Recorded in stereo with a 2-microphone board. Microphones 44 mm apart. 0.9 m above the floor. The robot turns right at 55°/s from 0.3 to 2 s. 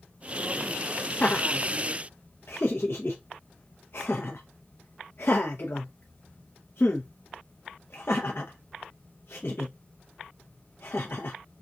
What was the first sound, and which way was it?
Laughter, 40° left (ahead or behind).